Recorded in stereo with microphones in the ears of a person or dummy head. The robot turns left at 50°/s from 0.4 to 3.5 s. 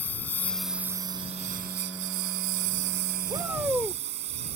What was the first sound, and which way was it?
A lawn mower, 10° left.